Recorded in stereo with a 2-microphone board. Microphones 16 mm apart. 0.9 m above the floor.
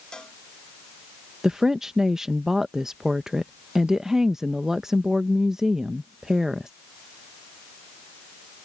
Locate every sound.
0.1 s a cowbell: 50° left (ahead or behind)
1.4 s a woman speaking: 35° right (ahead or behind)